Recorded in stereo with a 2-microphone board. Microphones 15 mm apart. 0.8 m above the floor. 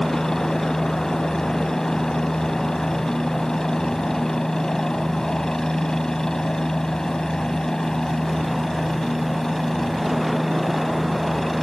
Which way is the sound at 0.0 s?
45° left (ahead or behind).